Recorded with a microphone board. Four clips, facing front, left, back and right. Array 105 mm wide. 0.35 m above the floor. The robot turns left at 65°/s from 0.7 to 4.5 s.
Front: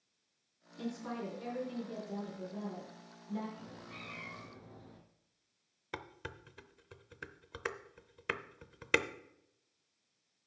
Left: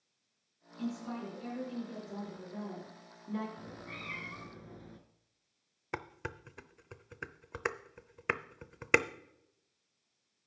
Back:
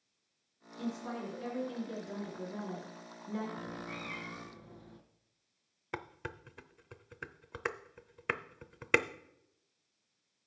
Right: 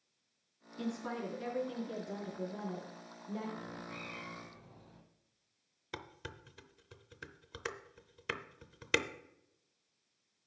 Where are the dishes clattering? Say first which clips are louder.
Left 6 dB, back 3 dB; 110° left, 0.5 m.